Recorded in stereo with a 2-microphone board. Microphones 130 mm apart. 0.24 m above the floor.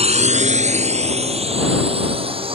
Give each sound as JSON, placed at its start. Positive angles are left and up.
{"t": 0.0, "sound": "a drone", "side_deg": -55}